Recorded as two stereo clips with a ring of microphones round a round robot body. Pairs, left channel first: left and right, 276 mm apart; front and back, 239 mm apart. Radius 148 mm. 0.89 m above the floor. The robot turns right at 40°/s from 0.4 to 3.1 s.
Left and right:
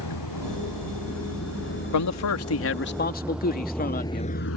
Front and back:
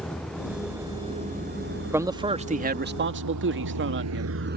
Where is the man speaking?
100° left; by 4.4 s 145° left.